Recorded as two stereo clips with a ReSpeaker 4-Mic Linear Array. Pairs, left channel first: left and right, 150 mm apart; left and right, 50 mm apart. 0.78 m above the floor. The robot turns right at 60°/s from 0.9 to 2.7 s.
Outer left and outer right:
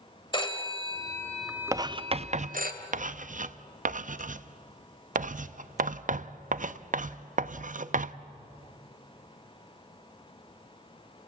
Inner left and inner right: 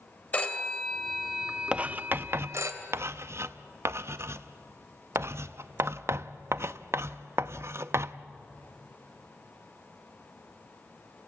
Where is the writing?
20° right (ahead or behind), 0.5 m; by 8.2 s 60° right (ahead or behind), 0.5 m.